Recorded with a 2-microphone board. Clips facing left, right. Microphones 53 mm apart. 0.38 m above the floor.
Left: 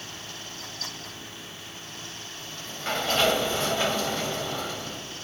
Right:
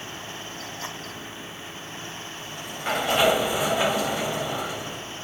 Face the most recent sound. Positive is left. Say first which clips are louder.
# right 2 dB
turn(degrees=-15)  # may be behind; listen again after turning